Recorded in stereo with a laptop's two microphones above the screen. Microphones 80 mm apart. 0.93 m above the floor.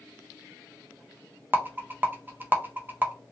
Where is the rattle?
25° right (ahead or behind), 0.5 m.